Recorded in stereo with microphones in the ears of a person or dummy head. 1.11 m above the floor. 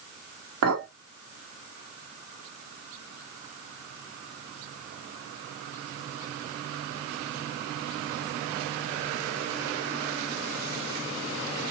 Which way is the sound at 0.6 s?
90° right.